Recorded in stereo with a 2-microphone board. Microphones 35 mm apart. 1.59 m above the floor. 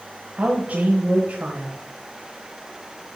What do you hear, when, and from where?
0.4 s a woman speaking: 55° right (ahead or behind), 1.4 m